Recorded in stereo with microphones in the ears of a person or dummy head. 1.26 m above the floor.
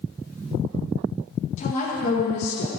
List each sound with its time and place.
1.6 s a woman speaking: 45° left (ahead or behind), 1.6 m; by 2.7 s 70° left (ahead or behind), 1.0 m